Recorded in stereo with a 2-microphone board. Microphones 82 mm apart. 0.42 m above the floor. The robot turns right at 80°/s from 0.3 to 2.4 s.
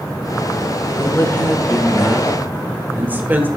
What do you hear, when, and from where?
0.9 s a woman speaking: 105° left, 1.5 m; by 3.5 s 135° right, 1.5 m